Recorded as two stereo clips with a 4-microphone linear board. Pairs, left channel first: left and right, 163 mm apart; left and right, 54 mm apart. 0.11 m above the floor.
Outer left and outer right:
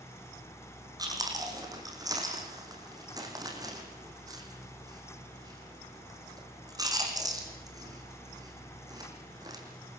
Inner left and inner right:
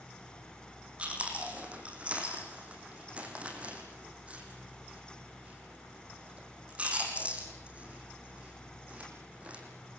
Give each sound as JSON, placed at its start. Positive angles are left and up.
{"t": 1.0, "sound": "chewing", "side_deg": -25, "distance_m": 4.0}